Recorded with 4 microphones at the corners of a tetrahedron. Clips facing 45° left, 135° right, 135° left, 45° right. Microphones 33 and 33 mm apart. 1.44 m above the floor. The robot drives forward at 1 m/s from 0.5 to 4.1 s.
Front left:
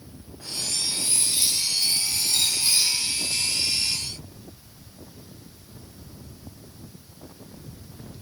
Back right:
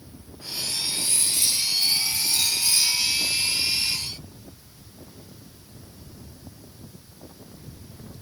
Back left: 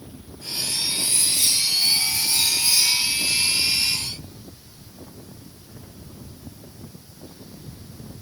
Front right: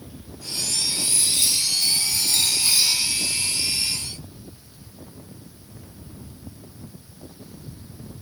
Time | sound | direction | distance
0.8 | cutlery clinking | 10° right | 9.5 m